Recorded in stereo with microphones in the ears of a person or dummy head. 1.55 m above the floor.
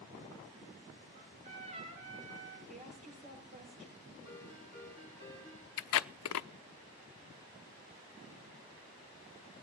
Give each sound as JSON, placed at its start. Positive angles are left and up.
{"t": 1.1, "sound": "a trumpet", "side_deg": -40, "distance_m": 5.5}
{"t": 2.7, "sound": "a woman speaking", "side_deg": -35, "distance_m": 7.5}
{"t": 4.2, "sound": "a ringtone", "side_deg": -15, "distance_m": 5.5}
{"t": 5.8, "sound": "tape being pulled", "side_deg": 80, "distance_m": 0.7}